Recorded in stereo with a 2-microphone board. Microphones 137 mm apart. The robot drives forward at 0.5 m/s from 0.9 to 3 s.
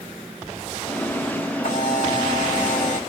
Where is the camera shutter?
80° left, 2.5 m; by 3.0 s 70° left (ahead or behind), 2.5 m.